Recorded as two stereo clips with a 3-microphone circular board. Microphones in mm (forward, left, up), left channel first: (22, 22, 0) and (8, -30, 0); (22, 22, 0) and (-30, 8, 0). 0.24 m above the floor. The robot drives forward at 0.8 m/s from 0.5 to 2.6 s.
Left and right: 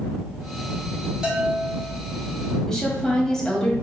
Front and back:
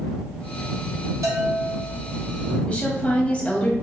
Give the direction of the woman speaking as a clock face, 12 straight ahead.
11 o'clock.